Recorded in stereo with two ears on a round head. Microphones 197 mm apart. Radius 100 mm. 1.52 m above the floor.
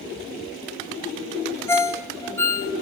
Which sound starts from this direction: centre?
A ringtone, at 1.7 s.